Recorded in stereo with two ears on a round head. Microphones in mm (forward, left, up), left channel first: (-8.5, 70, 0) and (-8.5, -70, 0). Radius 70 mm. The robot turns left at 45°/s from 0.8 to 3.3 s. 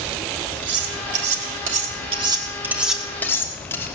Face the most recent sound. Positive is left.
turn(degrees=15)  # may be behind; listen again after turning